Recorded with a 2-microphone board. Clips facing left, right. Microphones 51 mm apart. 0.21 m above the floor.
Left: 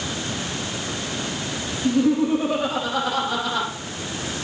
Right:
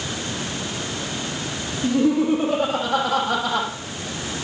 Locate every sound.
1.8 s laughter: 75° right (ahead or behind), 8 m; by 3.7 s 80° right, 7.5 m